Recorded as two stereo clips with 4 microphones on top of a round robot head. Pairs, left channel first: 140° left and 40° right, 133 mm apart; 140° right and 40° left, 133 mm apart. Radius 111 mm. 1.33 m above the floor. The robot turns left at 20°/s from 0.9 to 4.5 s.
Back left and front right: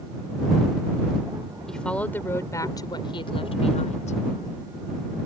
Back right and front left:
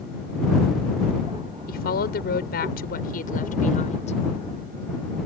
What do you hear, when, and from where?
1.7 s a woman speaking: 135° right; by 4.2 s 175° left